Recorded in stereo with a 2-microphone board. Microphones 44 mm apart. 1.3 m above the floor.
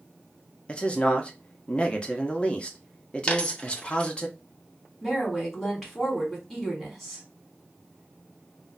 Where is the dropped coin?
25° left (ahead or behind), 0.6 m.